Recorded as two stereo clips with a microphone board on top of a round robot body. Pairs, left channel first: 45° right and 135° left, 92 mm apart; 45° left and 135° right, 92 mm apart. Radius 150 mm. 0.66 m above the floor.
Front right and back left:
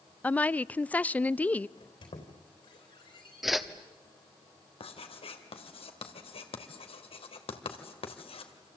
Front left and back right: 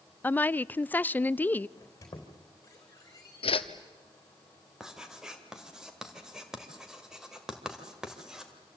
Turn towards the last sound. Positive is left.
turn(degrees=-50)